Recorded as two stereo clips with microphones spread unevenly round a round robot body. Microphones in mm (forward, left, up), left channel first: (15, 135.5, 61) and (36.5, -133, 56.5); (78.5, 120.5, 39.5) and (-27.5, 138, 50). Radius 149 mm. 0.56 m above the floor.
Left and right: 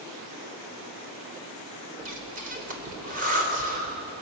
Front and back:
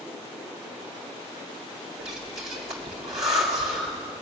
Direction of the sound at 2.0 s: 145° right.